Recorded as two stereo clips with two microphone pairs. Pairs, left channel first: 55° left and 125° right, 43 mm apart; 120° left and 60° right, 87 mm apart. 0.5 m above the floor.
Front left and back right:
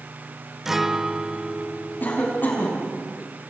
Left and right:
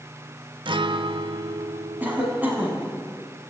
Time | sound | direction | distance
0.7 | a guitar | 50° right | 0.8 m
2.0 | a cough | 10° left | 5.5 m